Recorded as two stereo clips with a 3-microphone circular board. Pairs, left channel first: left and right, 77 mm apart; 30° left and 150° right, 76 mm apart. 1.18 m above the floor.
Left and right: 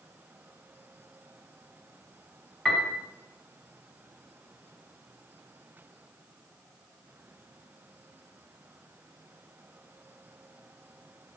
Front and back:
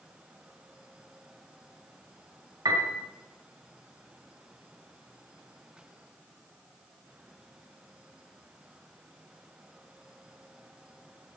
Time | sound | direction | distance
2.6 | a piano | 170° left | 3 m